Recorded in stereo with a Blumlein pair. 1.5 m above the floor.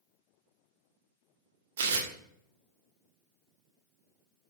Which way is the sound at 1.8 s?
60° right.